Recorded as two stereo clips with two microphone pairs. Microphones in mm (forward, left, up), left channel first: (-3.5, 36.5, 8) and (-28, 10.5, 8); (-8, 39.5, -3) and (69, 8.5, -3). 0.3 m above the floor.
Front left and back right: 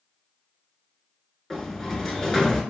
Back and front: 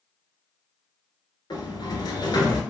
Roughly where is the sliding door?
Behind left.